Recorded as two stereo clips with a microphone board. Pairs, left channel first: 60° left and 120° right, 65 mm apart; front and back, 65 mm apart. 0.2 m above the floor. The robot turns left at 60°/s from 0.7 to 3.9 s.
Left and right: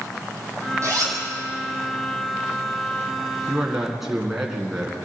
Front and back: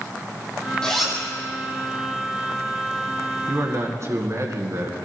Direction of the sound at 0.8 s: 75° right.